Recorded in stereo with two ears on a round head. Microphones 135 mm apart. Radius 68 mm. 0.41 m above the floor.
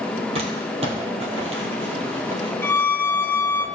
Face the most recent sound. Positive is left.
turn(degrees=10)  # may be behind; listen again after turning